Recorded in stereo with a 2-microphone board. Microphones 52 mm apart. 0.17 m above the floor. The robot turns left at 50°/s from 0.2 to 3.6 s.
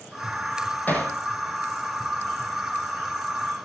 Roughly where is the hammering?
Left.